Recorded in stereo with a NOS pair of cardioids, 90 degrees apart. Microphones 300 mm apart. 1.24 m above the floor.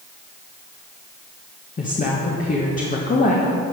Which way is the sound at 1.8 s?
30° left.